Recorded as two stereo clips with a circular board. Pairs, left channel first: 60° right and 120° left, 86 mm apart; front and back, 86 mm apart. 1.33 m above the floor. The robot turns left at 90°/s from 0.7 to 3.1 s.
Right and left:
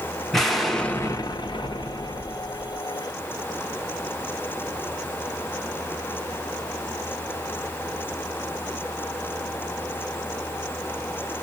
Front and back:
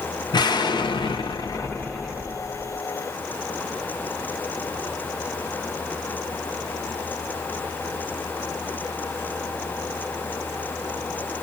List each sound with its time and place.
0.3 s an explosion: 30° left, 0.7 m; by 2.8 s 160° right, 0.7 m